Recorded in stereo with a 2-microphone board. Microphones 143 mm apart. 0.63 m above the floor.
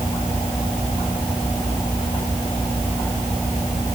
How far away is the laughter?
I don't hear laughter.